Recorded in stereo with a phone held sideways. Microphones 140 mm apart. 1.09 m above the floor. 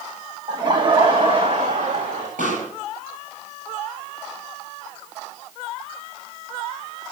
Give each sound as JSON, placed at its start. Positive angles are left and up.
{"t": 0.5, "sound": "laughter", "side_deg": -30, "distance_m": 1.2}
{"t": 2.4, "sound": "a pop", "side_deg": -70, "distance_m": 8.0}